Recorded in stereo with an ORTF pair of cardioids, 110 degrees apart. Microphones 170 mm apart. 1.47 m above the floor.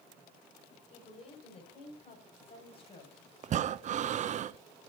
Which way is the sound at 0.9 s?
35° left.